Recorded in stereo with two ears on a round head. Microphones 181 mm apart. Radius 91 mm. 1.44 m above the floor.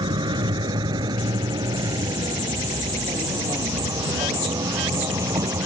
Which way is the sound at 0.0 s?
20° right (ahead or behind).